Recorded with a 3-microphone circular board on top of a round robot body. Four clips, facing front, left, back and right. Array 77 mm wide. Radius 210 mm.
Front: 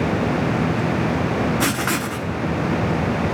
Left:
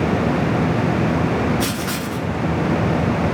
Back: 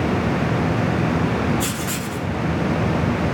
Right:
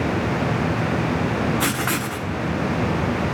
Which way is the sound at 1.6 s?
35° right.